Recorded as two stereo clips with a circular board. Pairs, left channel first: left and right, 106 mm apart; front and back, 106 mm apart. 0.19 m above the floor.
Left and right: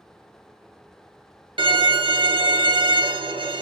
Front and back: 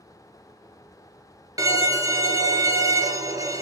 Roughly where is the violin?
Behind right.